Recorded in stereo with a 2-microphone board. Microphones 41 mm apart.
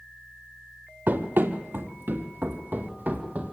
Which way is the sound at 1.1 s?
55° right (ahead or behind).